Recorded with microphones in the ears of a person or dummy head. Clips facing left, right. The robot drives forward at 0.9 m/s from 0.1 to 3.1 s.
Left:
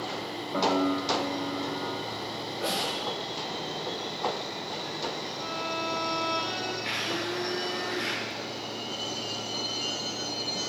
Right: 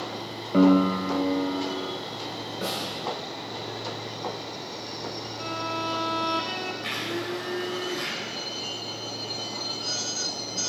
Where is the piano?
45° right (ahead or behind), 0.6 m; by 2.0 s 25° right (ahead or behind), 1.1 m.